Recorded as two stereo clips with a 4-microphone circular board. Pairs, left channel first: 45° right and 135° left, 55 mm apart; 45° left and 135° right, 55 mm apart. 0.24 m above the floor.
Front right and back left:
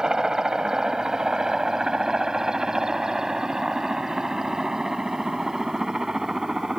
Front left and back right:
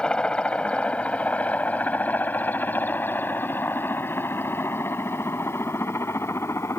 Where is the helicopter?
80° left; by 6.8 s 55° left.